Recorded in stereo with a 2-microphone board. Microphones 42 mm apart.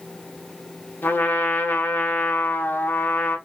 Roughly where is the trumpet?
Left.